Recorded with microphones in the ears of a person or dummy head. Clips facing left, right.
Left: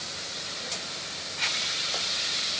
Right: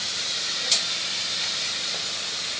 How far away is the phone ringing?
I don't hear a phone ringing.